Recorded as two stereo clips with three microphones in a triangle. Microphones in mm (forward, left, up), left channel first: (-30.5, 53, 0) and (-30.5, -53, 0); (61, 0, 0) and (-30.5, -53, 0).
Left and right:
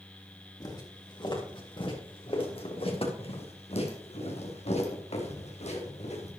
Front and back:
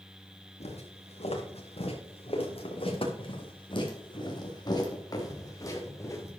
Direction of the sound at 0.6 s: 40° left.